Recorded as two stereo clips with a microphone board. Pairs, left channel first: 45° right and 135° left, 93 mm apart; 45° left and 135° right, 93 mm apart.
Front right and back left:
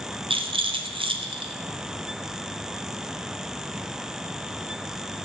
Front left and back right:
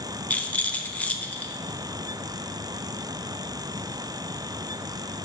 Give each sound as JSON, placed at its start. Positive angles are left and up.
{"t": 0.3, "sound": "a rattle", "azimuth_deg": 120, "distance_m": 0.6}